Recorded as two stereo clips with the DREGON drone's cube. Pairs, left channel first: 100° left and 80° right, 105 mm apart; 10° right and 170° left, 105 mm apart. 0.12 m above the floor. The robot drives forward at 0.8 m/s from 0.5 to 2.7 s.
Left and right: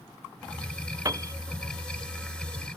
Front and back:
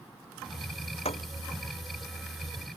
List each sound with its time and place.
1.1 s a piano: 25° right